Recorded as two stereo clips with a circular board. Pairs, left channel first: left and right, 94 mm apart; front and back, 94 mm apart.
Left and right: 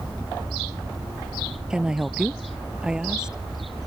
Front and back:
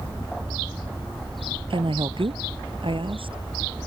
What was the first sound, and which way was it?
A woman speaking, 170° right.